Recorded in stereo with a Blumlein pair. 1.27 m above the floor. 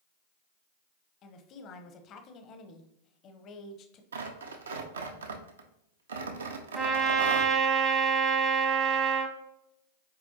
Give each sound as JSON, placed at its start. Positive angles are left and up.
{"t": 1.2, "sound": "a woman speaking", "azimuth_deg": 35, "distance_m": 0.7}
{"t": 4.1, "sound": "tearing paper", "azimuth_deg": -70, "distance_m": 0.6}
{"t": 6.8, "sound": "a trumpet", "azimuth_deg": -10, "distance_m": 0.7}